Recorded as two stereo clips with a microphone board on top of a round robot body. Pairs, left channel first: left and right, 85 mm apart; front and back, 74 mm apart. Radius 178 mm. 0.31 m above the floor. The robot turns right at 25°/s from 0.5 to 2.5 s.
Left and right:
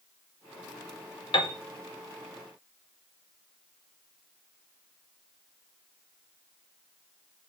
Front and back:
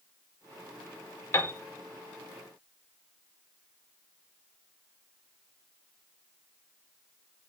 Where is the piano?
60° left, 0.5 m; by 1.5 s 65° left, 0.5 m.